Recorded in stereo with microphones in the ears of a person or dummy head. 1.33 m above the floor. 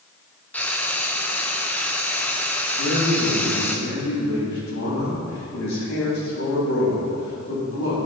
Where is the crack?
No crack in this recording.